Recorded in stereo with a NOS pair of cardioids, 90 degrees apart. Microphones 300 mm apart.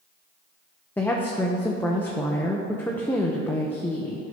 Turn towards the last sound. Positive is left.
turn(degrees=5)